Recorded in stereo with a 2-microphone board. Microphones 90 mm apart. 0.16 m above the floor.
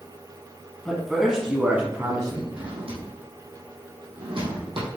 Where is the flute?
I don't hear a flute.